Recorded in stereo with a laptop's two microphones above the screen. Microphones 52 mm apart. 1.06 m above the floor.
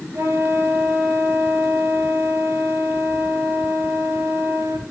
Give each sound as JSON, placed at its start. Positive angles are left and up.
{"t": 0.1, "sound": "a flute", "side_deg": -75, "distance_m": 6.5}